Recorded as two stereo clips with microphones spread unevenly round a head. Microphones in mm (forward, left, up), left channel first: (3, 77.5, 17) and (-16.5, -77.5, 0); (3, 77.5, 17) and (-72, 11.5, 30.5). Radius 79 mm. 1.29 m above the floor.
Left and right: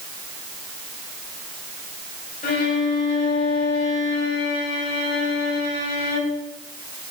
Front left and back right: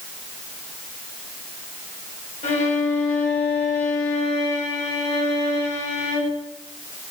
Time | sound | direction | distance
2.4 | a violin | 45° left | 3.5 m